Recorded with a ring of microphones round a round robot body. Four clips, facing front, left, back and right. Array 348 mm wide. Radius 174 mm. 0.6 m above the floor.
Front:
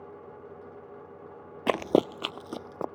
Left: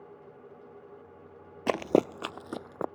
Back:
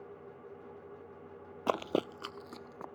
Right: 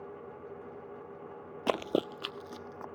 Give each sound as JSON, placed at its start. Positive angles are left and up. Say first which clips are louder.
{"t": 1.7, "sound": "running footsteps", "louder": "left 5 dB, front 8 dB", "azimuth_deg": 15}